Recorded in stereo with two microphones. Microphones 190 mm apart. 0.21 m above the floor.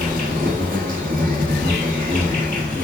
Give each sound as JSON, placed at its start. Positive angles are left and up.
{"t": 0.0, "sound": "an insect", "side_deg": -50, "distance_m": 1.3}